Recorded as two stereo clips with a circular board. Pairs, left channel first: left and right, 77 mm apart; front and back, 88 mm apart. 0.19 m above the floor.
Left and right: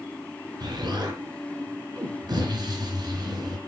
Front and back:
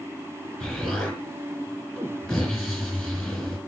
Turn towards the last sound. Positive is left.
turn(degrees=-85)